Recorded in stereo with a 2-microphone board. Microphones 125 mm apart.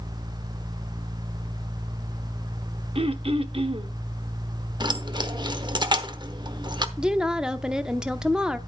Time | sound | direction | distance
3.0 | throat clearing | 50° right (ahead or behind) | 0.9 m
4.8 | keys jangling | 35° right (ahead or behind) | 0.9 m
7.0 | a woman speaking | 5° right (ahead or behind) | 0.7 m